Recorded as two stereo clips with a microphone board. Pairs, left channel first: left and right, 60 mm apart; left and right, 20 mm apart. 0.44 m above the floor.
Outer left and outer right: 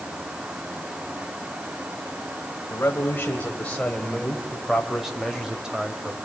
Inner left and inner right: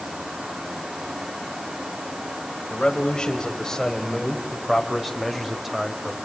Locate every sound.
2.7 s a man speaking: 35° left (ahead or behind), 3 m; by 6.2 s 20° right (ahead or behind), 2.5 m